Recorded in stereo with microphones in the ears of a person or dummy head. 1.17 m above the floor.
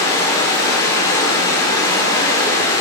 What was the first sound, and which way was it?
Running water, 25° left (ahead or behind).